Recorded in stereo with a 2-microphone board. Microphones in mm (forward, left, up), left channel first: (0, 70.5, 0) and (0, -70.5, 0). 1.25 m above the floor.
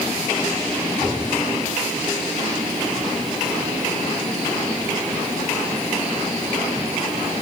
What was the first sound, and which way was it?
Only background noise.